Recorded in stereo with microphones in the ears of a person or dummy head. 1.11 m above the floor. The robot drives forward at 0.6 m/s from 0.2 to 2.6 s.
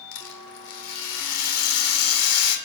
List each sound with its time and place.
0.1 s a rattle: 70° left (ahead or behind), 4.5 m; by 2.6 s 85° left, 4.5 m